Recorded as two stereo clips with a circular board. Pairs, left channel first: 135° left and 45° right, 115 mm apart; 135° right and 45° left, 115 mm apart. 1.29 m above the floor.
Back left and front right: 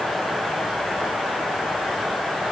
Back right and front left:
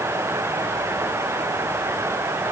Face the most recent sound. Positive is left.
No sound to turn to.